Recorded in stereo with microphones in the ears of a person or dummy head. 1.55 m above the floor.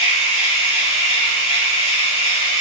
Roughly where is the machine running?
Left.